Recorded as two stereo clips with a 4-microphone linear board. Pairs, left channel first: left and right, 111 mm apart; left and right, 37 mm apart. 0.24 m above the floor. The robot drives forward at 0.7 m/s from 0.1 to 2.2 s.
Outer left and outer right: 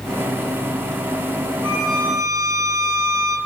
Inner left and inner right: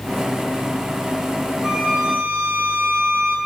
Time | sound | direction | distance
1.6 | a violin | 40° right (ahead or behind) | 7 m